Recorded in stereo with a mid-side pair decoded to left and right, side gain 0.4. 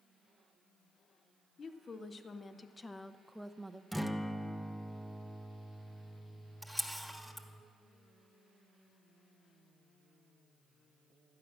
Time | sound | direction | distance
1.6 | a woman speaking | 55° left | 1.2 m
3.9 | a guitar | straight ahead | 0.8 m
6.6 | a camera shutter | 5° left | 1.6 m